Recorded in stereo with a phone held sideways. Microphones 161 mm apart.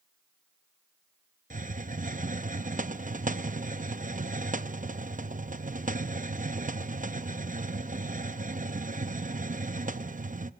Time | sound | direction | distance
1.5 | a hiss | 55° right (ahead or behind) | 0.6 m